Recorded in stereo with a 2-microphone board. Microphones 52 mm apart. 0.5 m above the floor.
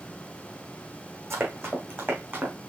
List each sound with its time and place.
1.3 s running footsteps: 60° right (ahead or behind), 1.9 m; by 2.5 s 40° right (ahead or behind), 2.5 m